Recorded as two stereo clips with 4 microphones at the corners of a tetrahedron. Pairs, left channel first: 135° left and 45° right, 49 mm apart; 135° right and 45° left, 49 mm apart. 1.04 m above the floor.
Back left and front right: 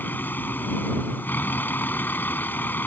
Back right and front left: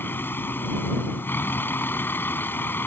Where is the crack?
No crack in this recording.